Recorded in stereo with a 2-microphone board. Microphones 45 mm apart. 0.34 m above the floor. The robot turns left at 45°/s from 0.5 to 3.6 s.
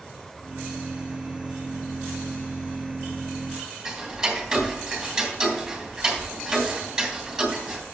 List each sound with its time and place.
3.9 s ticking: 5° right (ahead or behind), 3 m